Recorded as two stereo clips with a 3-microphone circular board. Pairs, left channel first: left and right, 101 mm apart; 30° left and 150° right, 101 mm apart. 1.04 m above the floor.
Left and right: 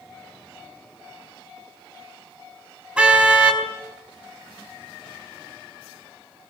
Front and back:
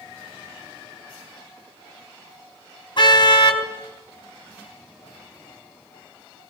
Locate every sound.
3.0 s a car horn: 10° right, 4 m